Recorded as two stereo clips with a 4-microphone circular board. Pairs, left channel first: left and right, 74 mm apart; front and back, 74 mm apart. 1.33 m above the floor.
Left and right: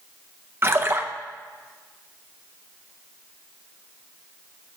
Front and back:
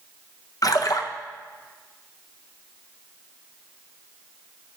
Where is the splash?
35° right, 0.7 m.